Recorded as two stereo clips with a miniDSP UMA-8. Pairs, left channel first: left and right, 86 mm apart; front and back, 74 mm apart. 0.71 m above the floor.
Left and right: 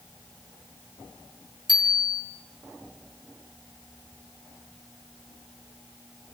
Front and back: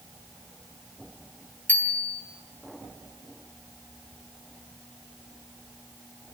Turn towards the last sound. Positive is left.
turn(degrees=-65)